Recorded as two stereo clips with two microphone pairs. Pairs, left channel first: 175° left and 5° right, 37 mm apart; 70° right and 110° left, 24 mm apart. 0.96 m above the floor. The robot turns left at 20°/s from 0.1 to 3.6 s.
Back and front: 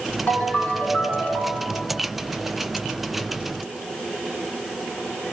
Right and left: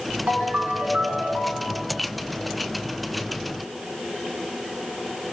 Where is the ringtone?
135° left, 2 m; by 1.8 s 100° left, 2 m.